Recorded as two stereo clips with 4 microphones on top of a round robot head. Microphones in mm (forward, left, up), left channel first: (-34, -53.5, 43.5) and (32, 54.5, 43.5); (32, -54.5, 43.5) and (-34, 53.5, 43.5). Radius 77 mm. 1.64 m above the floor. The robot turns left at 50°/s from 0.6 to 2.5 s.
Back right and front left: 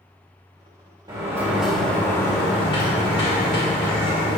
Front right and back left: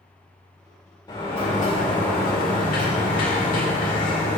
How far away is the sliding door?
About 2 m.